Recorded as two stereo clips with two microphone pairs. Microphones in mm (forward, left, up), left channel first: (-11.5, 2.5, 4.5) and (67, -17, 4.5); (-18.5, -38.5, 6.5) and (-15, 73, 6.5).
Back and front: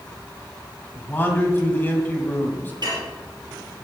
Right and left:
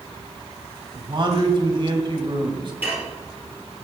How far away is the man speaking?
About 2 m.